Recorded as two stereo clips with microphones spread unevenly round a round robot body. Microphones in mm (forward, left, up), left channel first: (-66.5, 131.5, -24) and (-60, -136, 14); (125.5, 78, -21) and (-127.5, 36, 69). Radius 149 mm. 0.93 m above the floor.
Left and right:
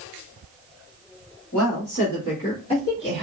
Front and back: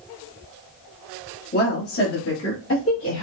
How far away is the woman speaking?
About 1.9 m.